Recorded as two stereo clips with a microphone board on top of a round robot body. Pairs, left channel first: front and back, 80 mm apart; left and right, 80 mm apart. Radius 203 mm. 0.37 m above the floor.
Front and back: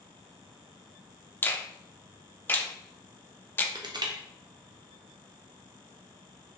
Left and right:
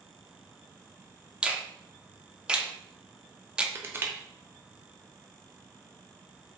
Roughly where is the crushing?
Behind right.